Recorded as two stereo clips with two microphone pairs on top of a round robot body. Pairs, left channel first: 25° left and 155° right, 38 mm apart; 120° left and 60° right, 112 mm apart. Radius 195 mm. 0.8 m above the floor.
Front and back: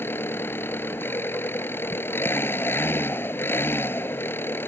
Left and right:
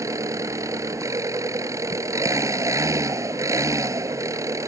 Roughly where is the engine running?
Ahead.